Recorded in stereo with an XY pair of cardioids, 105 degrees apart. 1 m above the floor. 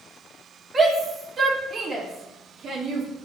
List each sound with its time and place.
0.7 s a shout: 30° right, 3 m; by 3.1 s 65° right, 3 m